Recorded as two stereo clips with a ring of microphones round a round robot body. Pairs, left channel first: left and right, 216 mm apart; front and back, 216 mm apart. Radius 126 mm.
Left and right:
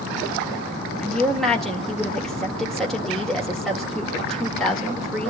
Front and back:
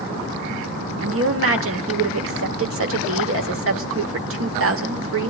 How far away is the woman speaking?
About 2 m.